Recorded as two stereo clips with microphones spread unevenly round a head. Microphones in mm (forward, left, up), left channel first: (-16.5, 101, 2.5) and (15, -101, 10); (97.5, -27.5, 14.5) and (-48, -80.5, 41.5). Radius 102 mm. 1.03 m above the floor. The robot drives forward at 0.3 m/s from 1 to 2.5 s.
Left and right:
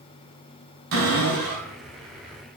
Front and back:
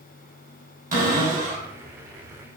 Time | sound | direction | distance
0.9 | a cupboard door | 125° right | 4.5 m